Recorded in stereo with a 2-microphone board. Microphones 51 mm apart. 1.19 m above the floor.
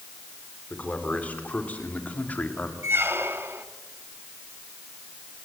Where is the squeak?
45° right (ahead or behind), 1.4 m.